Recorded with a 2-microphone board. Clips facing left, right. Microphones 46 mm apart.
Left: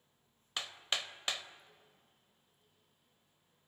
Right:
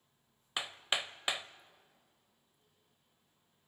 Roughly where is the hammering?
Centre.